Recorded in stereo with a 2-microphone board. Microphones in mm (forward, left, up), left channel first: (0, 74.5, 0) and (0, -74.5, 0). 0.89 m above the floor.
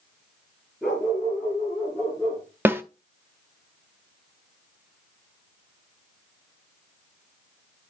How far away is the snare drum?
About 0.6 m.